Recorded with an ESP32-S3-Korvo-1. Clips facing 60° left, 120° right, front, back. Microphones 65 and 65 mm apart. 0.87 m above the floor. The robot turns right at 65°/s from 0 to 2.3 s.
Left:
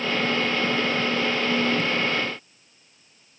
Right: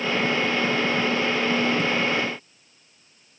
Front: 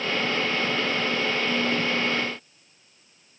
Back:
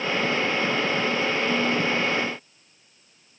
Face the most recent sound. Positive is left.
No sound to turn to.